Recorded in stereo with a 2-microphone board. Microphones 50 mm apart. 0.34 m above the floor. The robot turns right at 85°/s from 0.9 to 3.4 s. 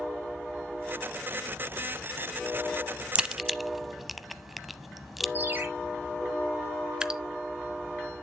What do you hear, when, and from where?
3.1 s a crack: 25° right (ahead or behind), 0.6 m; by 5.2 s centre (ahead or behind), 0.6 m
5.3 s a ringtone: 40° right (ahead or behind), 4 m
7.0 s dripping: 20° right (ahead or behind), 0.8 m